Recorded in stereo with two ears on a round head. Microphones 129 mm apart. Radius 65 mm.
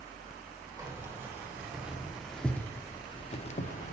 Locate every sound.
0.8 s keys jangling: 20° right (ahead or behind), 1.7 m; by 3.9 s 60° left (ahead or behind), 0.9 m